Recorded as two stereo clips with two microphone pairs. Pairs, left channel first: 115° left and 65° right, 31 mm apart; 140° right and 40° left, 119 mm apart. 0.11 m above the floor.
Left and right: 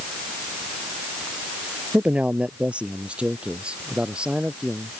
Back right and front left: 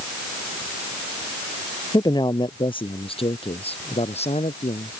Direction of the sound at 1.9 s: 95° right.